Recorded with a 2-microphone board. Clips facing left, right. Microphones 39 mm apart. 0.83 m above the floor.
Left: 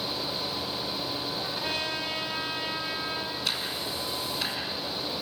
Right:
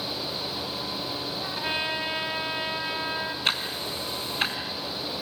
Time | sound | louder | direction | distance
1.4 | a trumpet | right 5 dB | 25° right (ahead or behind) | 2.5 m
3.5 | ticking | right 3 dB | 40° right (ahead or behind) | 3 m